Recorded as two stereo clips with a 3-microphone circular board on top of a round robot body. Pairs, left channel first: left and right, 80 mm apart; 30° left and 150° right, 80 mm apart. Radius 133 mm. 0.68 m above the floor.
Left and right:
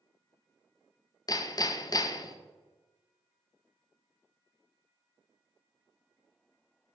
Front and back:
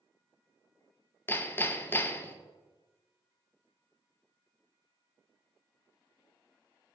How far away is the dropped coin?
No dropped coin in this recording.